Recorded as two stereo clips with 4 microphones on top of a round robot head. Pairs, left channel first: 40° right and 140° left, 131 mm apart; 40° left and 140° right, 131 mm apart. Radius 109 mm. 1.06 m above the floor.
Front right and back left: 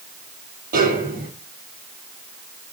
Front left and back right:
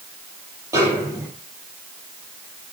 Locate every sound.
0.7 s a snare drum: 150° left, 6 m